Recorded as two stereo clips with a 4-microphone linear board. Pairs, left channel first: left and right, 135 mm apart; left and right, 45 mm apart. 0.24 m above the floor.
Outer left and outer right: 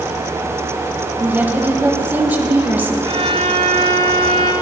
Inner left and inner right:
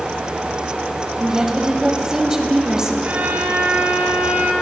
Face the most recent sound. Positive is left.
turn(degrees=-45)  # may be behind; listen again after turning